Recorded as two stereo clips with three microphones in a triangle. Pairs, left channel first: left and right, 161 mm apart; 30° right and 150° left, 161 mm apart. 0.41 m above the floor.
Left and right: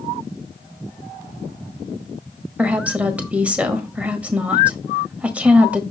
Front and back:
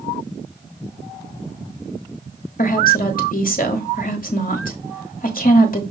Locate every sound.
2.6 s a woman speaking: 10° right, 1.5 m